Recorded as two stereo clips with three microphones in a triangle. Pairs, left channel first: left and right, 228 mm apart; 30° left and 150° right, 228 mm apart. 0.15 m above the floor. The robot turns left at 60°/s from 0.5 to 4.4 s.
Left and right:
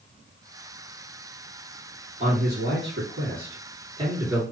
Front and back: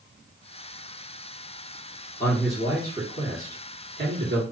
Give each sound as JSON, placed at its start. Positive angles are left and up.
{"t": 2.2, "sound": "a man speaking", "azimuth_deg": -45, "distance_m": 2.0}